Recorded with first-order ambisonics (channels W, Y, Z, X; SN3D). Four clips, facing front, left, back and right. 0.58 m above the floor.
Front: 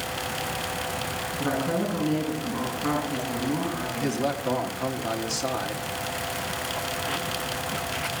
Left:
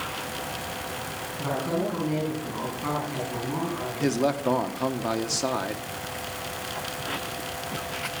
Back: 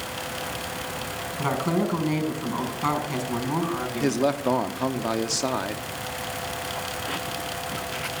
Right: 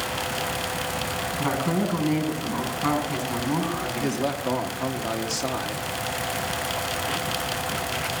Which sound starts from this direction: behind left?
A man speaking, at 4.0 s.